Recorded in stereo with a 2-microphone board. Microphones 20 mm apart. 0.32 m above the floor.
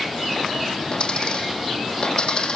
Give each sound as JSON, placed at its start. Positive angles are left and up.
{"t": 0.9, "sound": "a dropped coin", "side_deg": 45, "distance_m": 4.5}